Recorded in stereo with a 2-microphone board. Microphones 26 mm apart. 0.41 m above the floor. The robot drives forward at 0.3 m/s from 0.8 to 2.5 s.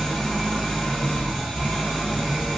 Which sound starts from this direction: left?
An engine running, at 0.0 s.